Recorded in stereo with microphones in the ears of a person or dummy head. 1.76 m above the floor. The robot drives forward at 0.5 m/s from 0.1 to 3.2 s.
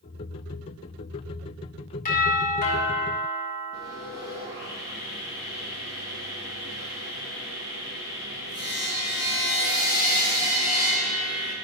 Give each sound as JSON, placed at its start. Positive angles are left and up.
{"t": 2.0, "sound": "a doorbell", "side_deg": 45, "distance_m": 1.7}
{"t": 3.7, "sound": "sawing", "side_deg": -15, "distance_m": 1.4}